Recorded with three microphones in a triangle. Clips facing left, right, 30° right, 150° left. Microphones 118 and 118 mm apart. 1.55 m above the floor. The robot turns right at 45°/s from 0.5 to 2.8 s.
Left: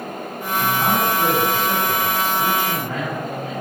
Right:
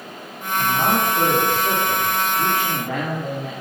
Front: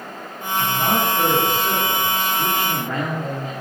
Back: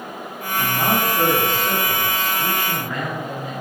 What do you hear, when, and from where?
0.6 s a man speaking: 170° right, 5 m; by 3.5 s 65° right, 5 m